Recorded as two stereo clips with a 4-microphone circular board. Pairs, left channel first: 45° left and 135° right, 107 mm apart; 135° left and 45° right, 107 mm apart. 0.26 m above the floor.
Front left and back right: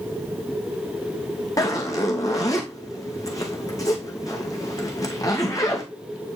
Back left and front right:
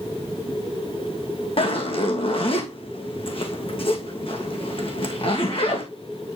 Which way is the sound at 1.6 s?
105° left.